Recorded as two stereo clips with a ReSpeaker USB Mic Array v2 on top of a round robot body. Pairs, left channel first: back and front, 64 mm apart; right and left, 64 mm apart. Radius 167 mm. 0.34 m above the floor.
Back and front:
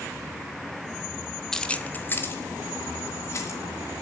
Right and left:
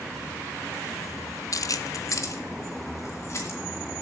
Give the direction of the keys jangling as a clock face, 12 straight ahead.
3 o'clock.